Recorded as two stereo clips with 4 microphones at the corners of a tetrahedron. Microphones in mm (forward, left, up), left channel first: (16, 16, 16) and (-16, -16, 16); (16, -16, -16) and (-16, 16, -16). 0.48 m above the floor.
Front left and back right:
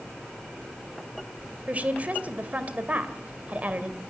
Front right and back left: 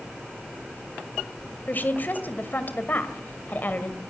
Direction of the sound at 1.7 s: 85° right.